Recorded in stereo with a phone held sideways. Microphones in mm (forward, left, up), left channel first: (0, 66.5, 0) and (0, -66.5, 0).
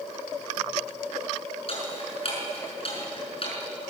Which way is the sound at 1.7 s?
45° left (ahead or behind).